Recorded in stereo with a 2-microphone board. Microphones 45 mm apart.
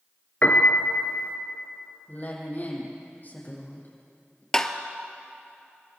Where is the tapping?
15° left (ahead or behind), 1.2 m.